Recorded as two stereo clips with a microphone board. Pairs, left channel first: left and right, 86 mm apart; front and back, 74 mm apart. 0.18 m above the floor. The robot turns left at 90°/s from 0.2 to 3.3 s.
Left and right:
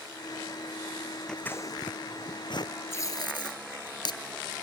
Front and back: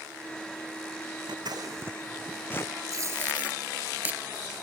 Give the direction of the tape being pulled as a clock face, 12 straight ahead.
7 o'clock.